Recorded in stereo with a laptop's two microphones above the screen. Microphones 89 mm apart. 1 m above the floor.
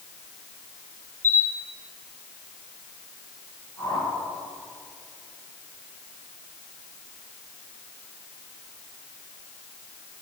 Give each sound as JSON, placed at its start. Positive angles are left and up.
{"t": 1.2, "sound": "a camera shutter", "side_deg": 25, "distance_m": 0.7}
{"t": 3.8, "sound": "a whoosh", "side_deg": 30, "distance_m": 3.0}